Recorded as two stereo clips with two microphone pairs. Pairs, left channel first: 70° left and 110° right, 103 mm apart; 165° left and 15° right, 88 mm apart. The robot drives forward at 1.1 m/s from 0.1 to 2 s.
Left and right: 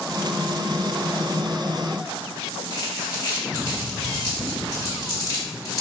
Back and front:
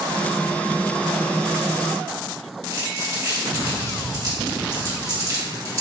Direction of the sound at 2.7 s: 25° left.